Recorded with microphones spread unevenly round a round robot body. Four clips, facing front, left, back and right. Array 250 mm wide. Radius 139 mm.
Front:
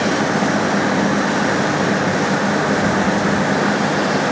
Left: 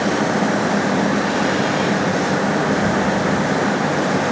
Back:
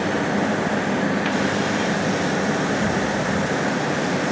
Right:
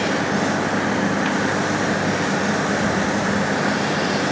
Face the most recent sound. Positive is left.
No sound to turn to.